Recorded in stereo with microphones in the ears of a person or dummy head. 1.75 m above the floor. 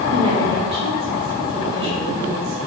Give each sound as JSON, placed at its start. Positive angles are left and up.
{"t": 0.1, "sound": "a woman speaking", "side_deg": -40, "distance_m": 3.0}